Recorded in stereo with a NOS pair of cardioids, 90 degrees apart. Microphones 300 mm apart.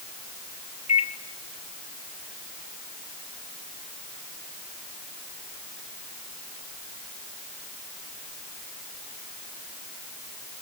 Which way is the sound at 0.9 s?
20° left.